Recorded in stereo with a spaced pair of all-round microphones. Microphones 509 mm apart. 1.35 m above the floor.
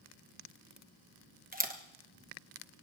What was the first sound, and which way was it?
A camera shutter, 15° right (ahead or behind).